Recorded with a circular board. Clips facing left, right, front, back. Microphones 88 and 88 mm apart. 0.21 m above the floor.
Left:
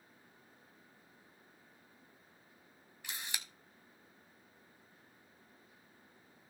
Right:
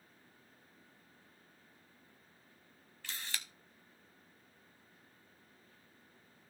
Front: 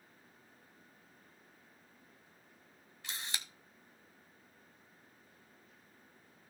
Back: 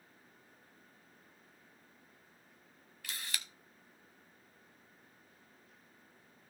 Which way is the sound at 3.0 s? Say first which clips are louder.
Even, front 1 dB; 35° left.